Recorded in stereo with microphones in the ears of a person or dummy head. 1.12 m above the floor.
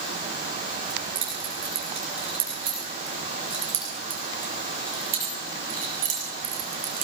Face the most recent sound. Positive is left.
turn(degrees=-45)  # may be behind; listen again after turning